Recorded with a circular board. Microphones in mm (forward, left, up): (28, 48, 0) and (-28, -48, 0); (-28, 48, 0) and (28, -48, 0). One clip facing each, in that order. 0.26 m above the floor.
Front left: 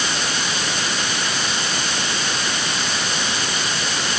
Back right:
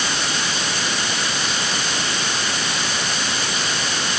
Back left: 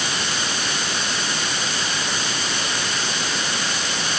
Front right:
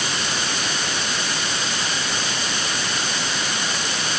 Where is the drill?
No drill in this recording.